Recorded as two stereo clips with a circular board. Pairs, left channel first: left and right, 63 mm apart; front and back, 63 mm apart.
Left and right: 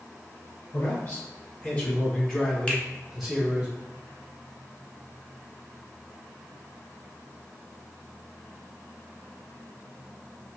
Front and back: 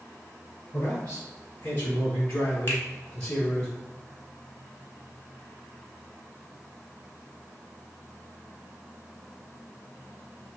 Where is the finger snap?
30° left, 1.2 m.